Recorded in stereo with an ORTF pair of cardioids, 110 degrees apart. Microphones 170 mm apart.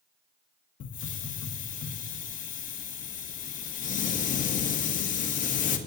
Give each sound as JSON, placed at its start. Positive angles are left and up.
{"t": 0.8, "sound": "a hiss", "azimuth_deg": 50, "distance_m": 1.4}